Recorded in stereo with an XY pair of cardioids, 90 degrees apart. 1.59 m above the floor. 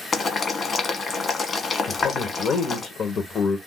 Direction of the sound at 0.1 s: 45° left.